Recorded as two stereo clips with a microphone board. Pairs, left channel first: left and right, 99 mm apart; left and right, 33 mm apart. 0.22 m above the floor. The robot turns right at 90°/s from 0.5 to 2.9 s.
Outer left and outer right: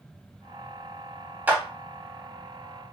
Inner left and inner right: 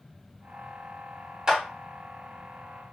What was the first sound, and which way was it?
A clap, 15° right (ahead or behind).